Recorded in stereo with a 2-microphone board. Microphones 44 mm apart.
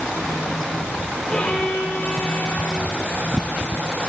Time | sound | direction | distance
1.3 | a violin | 15° left (ahead or behind) | 6 m